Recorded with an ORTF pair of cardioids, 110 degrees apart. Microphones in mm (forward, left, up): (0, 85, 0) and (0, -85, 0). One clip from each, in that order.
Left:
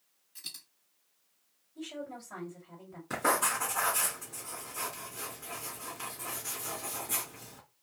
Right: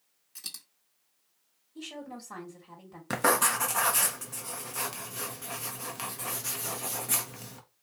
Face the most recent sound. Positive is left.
turn(degrees=-65)